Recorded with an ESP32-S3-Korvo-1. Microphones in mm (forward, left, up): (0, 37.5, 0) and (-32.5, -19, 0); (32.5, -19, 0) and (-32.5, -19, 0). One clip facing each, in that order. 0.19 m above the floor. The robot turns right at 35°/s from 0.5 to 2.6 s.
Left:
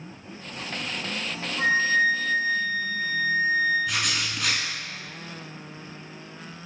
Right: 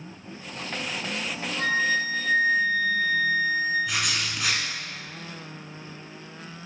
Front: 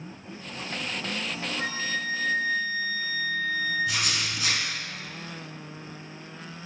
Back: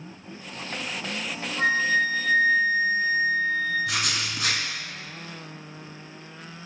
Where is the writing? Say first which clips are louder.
Even, back 1 dB; 155° left, 0.8 m.